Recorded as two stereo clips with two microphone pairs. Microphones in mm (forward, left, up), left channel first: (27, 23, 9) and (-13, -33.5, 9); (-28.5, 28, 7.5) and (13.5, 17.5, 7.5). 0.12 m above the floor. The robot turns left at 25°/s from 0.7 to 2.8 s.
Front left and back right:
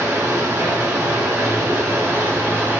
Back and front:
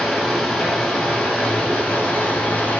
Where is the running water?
115° right, 1.5 m; by 2.8 s 165° right, 1.5 m.